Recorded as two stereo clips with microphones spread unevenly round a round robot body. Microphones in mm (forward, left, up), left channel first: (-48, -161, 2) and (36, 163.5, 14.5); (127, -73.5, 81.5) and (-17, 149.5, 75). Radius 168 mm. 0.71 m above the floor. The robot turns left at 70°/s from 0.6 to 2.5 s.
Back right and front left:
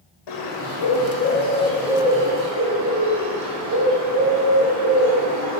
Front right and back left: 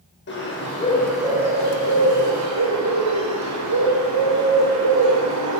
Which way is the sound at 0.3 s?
110° right.